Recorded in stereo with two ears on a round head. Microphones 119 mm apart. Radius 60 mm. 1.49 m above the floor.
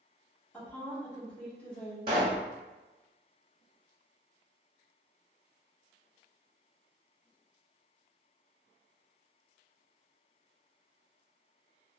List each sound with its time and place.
0.5 s a woman speaking: 10° left (ahead or behind), 1.5 m
2.1 s a pop: 40° right (ahead or behind), 1.4 m